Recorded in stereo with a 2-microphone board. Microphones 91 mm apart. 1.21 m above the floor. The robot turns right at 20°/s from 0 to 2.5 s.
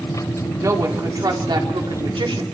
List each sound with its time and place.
0.6 s a woman speaking: 145° right, 3.5 m; by 2.4 s 105° right, 3.5 m